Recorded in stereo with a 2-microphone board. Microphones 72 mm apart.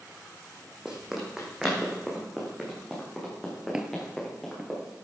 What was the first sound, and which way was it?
Running footsteps, 10° right (ahead or behind).